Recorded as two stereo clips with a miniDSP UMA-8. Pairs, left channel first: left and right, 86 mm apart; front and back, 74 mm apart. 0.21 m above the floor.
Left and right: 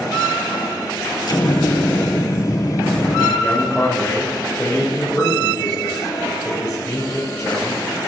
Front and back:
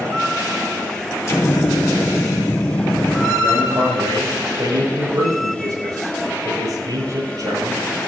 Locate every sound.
1.3 s an explosion: 55° left, 2.5 m
3.4 s a man speaking: 165° left, 7.5 m